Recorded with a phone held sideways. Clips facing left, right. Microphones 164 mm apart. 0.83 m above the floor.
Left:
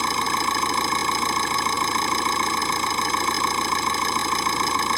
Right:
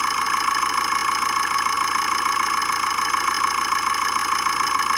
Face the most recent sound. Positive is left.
turn(degrees=30)  # may be behind; listen again after turning